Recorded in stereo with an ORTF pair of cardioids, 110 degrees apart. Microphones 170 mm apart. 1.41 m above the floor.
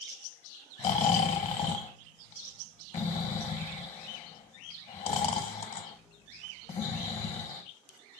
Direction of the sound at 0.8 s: 40° left.